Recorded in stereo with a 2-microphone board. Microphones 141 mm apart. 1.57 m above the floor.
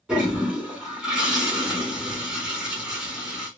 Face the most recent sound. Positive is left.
turn(degrees=-5)  # may be behind; listen again after turning